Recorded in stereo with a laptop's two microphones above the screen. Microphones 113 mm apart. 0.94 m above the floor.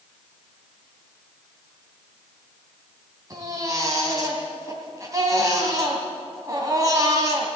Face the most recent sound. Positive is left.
turn(degrees=-30)  # may be behind; listen again after turning